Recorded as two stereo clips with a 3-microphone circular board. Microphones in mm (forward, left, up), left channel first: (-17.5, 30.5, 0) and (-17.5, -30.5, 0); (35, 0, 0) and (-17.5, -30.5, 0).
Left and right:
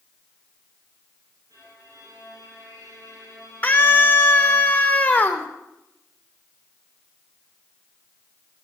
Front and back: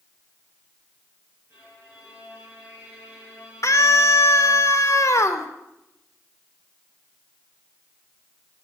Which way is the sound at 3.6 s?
30° left.